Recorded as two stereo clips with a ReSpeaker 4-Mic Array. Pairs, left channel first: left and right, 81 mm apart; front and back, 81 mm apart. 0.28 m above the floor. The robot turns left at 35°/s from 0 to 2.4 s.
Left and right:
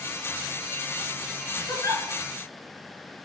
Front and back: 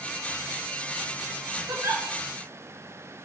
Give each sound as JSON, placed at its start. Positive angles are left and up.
{"t": 1.7, "sound": "a giggle", "azimuth_deg": 135, "distance_m": 0.5}